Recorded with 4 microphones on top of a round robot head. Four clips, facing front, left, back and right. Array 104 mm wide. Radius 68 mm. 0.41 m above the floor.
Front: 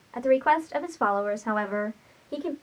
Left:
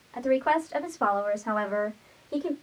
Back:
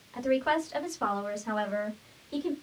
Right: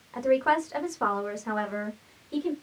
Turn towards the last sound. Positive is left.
turn(degrees=30)